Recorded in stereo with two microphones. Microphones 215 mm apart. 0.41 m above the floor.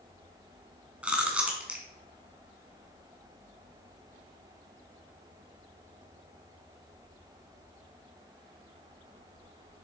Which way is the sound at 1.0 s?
5° right (ahead or behind).